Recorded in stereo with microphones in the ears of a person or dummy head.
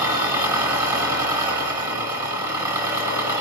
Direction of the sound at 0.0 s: 20° right (ahead or behind).